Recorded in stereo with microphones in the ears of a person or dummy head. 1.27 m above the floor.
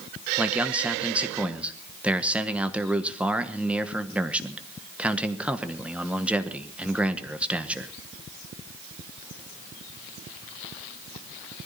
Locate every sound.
0.4 s a man speaking: 10° right (ahead or behind), 1.2 m